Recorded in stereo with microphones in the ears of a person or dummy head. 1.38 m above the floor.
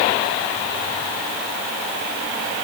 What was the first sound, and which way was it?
Only background noise.